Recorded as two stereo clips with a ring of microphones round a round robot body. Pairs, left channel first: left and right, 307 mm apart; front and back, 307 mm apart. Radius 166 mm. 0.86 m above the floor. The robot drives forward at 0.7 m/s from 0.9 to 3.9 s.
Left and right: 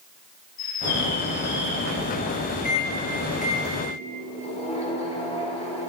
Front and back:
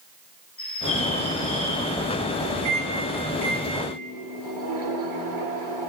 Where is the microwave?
150° left, 1.9 m; by 5.9 s 160° left, 2.5 m.